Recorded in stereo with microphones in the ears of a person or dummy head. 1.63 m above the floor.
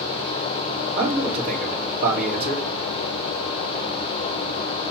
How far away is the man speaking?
About 2.5 m.